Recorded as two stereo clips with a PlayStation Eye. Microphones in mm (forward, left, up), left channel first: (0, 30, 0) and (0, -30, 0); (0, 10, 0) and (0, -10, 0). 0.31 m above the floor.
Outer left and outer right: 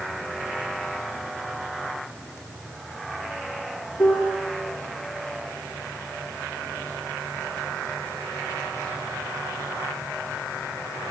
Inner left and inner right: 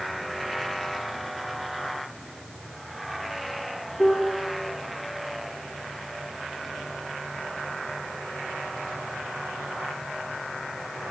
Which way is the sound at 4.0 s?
55° left (ahead or behind).